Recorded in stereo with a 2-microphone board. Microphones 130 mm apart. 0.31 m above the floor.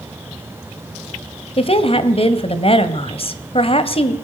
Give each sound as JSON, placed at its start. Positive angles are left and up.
{"t": 1.6, "sound": "a woman speaking", "side_deg": 50, "distance_m": 1.8}